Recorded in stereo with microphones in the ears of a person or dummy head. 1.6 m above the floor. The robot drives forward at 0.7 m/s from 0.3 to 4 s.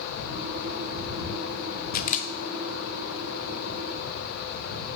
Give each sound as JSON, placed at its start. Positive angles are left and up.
{"t": 1.9, "sound": "a camera shutter", "side_deg": 50, "distance_m": 0.6}